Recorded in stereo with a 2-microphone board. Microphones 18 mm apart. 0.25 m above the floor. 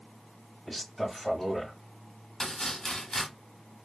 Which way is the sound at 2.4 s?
30° left (ahead or behind).